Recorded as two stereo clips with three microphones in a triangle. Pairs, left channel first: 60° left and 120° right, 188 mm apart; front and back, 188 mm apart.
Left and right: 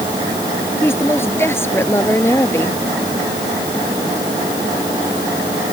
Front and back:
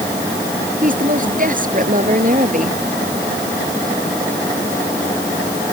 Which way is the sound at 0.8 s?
135° left.